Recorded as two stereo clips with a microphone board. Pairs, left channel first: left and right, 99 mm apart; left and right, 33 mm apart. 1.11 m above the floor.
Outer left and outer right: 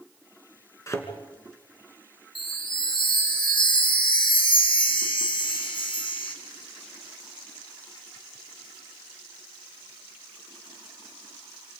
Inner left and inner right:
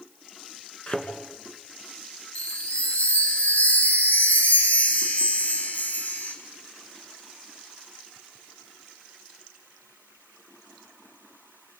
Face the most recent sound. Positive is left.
turn(degrees=55)  # may be behind; listen again after turning